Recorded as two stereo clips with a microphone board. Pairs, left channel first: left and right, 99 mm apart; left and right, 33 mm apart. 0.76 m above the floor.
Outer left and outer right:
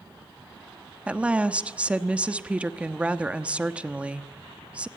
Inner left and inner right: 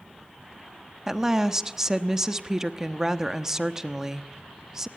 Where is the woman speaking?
10° right (ahead or behind), 1.0 m.